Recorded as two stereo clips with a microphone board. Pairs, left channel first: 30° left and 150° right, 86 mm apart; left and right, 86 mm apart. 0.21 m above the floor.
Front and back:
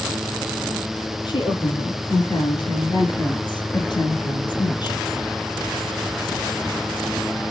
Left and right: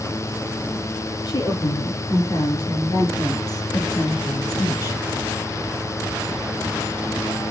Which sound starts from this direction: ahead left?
A woman speaking, at 1.2 s.